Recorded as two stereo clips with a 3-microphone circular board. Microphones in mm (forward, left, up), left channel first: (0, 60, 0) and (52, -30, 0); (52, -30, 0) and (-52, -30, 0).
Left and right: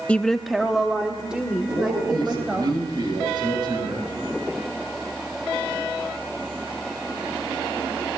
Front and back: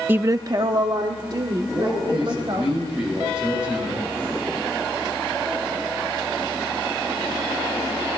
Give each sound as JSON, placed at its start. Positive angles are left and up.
{"t": 0.1, "sound": "a woman speaking", "azimuth_deg": 165, "distance_m": 0.5}
{"t": 1.7, "sound": "a man speaking", "azimuth_deg": -100, "distance_m": 9.5}